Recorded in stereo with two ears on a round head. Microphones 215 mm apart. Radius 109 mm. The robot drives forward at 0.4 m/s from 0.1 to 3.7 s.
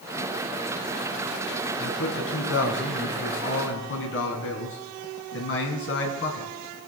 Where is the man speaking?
65° left (ahead or behind), 4.5 m; by 6.5 s 55° left (ahead or behind), 4.5 m.